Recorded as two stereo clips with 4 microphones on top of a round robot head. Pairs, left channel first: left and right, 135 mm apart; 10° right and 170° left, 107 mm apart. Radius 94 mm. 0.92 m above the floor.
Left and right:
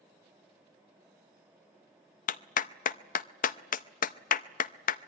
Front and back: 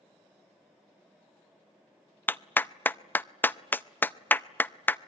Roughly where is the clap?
Ahead left.